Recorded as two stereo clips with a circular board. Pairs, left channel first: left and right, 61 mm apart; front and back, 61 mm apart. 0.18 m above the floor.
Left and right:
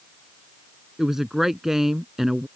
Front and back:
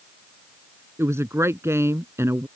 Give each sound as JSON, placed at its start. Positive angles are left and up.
{"t": 1.0, "sound": "a woman speaking", "azimuth_deg": -170}